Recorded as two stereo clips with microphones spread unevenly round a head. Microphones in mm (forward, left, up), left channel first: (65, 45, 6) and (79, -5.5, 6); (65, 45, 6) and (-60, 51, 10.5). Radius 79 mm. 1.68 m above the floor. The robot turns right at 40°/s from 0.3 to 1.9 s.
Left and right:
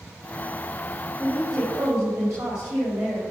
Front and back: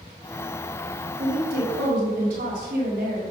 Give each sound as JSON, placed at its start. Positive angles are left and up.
{"t": 1.2, "sound": "a woman speaking", "azimuth_deg": -165, "distance_m": 4.5}